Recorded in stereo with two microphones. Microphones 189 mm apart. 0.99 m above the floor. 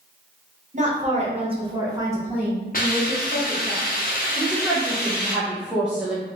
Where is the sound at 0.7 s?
40° right (ahead or behind), 0.9 m; by 3.7 s 10° left (ahead or behind), 1.3 m.